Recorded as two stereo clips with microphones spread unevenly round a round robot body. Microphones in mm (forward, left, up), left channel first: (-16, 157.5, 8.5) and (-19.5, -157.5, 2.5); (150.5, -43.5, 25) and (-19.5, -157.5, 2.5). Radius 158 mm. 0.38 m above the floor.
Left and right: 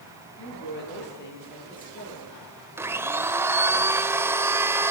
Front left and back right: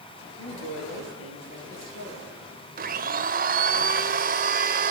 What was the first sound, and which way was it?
A woman speaking, 35° left.